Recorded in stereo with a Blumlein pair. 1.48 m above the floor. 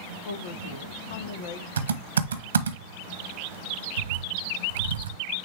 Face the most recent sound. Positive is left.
turn(degrees=-70)